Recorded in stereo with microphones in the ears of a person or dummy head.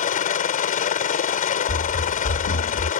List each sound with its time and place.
0.0 s a helicopter: 40° left (ahead or behind)
1.7 s running footsteps: 60° left (ahead or behind); by 2.9 s 65° left (ahead or behind)